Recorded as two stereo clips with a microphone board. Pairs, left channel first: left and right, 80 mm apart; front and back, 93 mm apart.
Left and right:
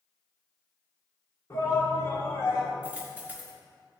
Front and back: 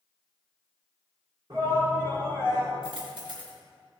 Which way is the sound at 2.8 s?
160° right.